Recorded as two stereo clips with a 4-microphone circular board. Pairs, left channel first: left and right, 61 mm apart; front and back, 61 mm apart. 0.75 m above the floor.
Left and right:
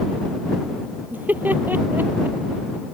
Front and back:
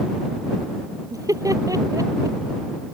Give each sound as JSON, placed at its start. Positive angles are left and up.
{"t": 1.1, "sound": "laughter", "azimuth_deg": -150}